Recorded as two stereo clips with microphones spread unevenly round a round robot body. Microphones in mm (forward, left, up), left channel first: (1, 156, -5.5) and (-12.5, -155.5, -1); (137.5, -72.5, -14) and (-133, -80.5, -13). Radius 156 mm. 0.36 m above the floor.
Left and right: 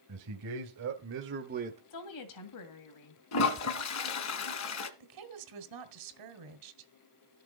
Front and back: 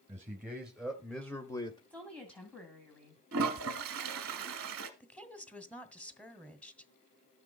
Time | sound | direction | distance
0.1 | a man speaking | 100° right | 1.9 m
1.9 | a woman speaking | 85° left | 2 m
3.3 | a toilet flushing | 130° left | 1.2 m
5.0 | a woman speaking | 85° right | 2 m